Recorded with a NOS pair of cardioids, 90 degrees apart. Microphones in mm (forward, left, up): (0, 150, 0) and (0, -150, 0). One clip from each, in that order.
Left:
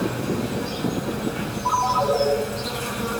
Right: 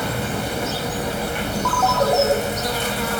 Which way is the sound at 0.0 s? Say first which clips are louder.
Right 2 dB; 65° right.